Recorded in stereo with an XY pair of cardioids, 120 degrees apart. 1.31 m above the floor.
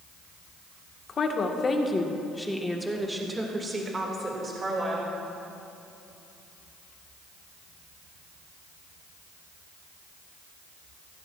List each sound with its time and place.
1.1 s a woman speaking: 45° left, 1.3 m; by 5.1 s 40° right, 2.5 m